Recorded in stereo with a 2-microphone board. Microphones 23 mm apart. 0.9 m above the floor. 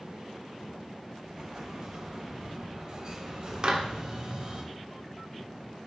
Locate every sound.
1.2 s an explosion: 35° right (ahead or behind), 2.5 m
3.6 s a clap: 40° right (ahead or behind), 1.4 m